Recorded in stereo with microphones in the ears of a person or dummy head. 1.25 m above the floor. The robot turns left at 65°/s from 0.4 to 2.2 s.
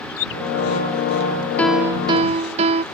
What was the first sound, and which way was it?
A bird, 75° left (ahead or behind).